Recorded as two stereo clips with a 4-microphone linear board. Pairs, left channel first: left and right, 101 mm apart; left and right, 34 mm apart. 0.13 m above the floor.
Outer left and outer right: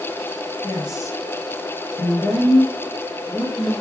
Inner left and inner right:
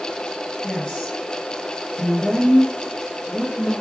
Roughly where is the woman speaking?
Left.